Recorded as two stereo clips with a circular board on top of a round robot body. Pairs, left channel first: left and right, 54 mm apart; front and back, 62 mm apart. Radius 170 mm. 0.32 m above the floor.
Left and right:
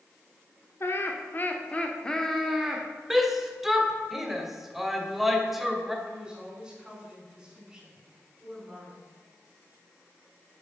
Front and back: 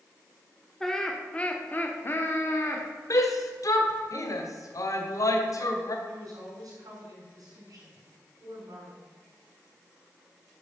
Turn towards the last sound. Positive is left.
turn(degrees=-170)